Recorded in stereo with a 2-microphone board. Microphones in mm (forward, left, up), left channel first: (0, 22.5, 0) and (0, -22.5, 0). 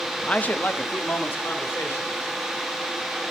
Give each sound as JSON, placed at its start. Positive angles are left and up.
{"t": 0.2, "sound": "a man speaking", "side_deg": 20, "distance_m": 0.6}